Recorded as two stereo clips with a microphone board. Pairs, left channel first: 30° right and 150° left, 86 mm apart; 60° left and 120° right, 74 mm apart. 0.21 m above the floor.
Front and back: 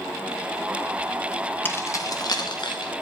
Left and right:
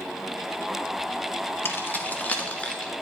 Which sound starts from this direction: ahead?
Keys jangling, at 1.6 s.